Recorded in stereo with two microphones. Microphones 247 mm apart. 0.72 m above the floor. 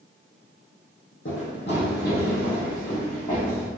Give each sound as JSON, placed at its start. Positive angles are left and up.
{"t": 1.2, "sound": "running footsteps", "side_deg": 55, "distance_m": 2.0}